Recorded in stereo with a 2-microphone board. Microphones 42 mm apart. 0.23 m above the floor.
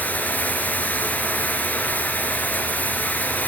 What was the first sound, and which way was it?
Running water, 40° left (ahead or behind).